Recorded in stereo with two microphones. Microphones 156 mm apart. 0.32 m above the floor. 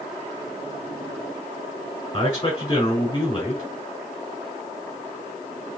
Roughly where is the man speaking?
Left.